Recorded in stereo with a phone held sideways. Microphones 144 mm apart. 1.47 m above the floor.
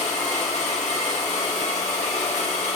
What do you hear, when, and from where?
0.0 s a machine running: 55° left (ahead or behind), 3 m